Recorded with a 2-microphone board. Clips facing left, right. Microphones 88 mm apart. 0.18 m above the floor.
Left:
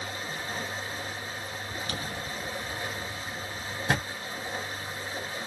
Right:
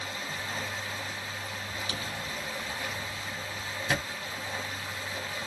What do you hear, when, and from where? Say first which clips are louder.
0.0 s running water: left 1 dB; 35° left (ahead or behind), 1.5 m
1.9 s a drawer: left 1 dB; 55° left (ahead or behind), 1.2 m